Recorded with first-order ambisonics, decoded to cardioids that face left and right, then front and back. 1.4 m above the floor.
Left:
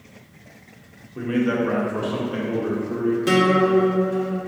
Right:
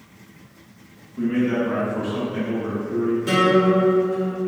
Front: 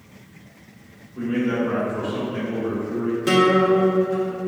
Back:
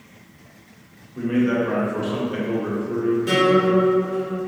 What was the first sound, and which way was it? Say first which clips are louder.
A man speaking: even, back 2 dB; 95° left.